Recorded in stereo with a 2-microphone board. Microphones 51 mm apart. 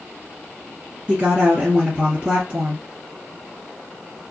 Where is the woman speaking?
25° right (ahead or behind), 1.8 m.